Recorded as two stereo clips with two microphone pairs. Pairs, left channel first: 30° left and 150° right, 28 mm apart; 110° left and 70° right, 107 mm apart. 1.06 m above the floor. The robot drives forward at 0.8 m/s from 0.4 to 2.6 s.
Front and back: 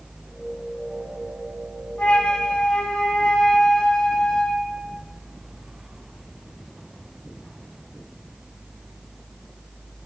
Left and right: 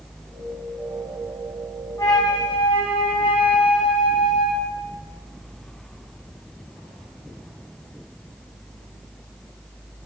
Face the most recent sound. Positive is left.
turn(degrees=80)